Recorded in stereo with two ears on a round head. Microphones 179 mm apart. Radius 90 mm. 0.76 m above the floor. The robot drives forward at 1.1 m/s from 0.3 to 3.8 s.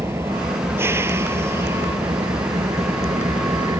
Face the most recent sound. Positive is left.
turn(degrees=-20)  # may be behind; listen again after turning